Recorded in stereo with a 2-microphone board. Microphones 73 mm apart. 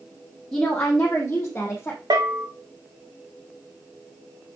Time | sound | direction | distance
0.5 | a woman speaking | 10° left (ahead or behind) | 2.5 m
2.1 | a bell | 75° right (ahead or behind) | 2.5 m